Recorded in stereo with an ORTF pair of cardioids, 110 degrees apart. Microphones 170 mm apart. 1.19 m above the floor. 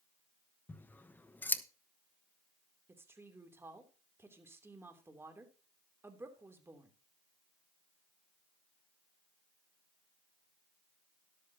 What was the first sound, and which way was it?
Scissors, 10° left.